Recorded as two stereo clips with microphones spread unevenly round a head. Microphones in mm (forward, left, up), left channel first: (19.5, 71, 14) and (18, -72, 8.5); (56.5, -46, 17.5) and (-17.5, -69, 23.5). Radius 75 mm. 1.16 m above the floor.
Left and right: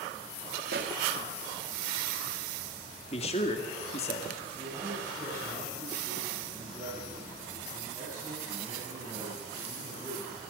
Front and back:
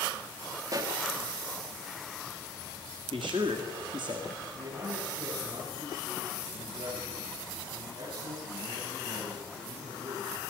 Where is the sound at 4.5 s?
150° right, 9.5 m.